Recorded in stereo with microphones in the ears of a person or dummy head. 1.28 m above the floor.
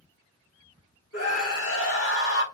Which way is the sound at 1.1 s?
80° left.